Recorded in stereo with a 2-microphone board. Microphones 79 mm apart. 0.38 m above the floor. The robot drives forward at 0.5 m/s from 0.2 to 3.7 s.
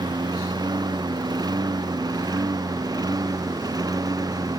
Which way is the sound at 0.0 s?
60° right (ahead or behind).